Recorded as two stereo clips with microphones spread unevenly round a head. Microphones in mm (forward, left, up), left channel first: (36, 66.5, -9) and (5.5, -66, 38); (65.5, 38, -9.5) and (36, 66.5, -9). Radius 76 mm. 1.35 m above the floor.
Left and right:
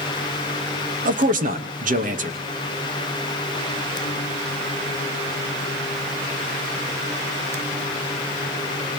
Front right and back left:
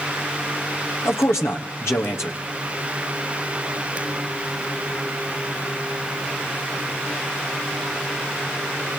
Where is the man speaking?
75° right, 2 m.